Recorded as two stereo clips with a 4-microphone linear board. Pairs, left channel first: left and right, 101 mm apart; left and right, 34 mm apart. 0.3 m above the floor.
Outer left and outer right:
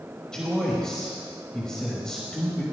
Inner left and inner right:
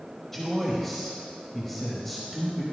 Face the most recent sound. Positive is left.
turn(degrees=5)  # may be behind; listen again after turning